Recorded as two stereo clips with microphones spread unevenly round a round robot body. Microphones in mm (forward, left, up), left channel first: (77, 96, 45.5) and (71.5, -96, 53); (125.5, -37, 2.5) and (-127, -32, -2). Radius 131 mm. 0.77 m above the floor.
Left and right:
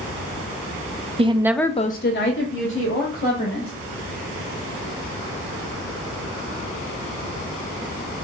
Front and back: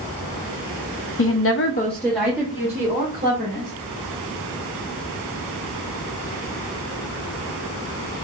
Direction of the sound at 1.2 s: 30° right.